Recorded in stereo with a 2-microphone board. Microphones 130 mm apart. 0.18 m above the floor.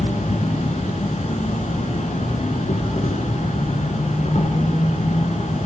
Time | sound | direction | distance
0.0 | an insect | 55° left (ahead or behind) | 1.2 m